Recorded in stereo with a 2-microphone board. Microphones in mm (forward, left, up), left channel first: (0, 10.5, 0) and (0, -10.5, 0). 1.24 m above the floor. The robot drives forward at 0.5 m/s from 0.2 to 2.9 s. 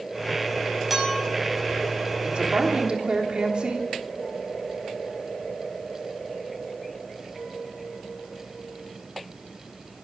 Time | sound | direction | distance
0.9 | a clink | 10° right (ahead or behind) | 5 m
2.2 | a woman speaking | 60° right (ahead or behind) | 3 m